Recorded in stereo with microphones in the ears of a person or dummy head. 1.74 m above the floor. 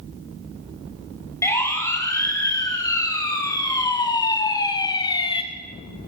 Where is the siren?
15° left (ahead or behind), 5 m; by 5.4 s 25° left (ahead or behind), 2 m.